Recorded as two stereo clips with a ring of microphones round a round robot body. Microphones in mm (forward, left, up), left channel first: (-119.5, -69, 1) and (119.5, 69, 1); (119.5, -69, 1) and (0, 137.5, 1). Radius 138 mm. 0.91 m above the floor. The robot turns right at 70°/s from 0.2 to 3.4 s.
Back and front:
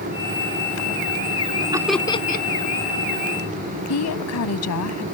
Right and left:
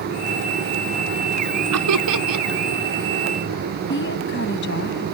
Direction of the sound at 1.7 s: 105° left.